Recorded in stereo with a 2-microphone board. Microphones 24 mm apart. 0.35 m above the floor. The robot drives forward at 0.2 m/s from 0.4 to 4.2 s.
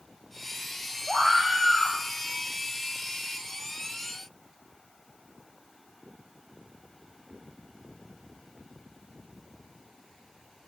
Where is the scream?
25° right (ahead or behind), 1.5 m; by 2.0 s 20° right (ahead or behind), 1.7 m.